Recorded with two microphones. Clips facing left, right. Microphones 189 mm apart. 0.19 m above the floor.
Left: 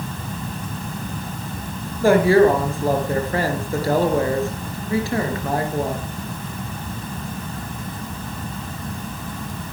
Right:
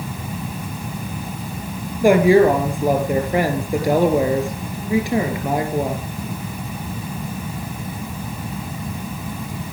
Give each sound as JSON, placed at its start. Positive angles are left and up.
{"t": 2.0, "sound": "a woman speaking", "side_deg": -15, "distance_m": 3.5}